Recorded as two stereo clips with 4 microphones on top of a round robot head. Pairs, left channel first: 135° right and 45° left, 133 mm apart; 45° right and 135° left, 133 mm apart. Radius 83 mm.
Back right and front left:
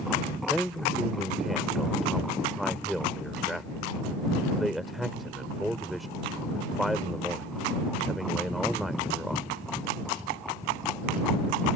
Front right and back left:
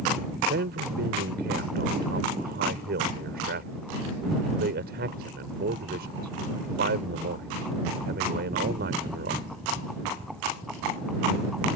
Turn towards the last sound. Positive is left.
turn(degrees=135)